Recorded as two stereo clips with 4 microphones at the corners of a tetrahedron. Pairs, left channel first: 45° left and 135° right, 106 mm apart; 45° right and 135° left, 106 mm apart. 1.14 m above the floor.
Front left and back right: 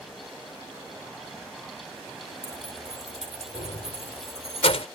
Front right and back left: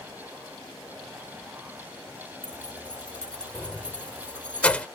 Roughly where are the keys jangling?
Ahead left.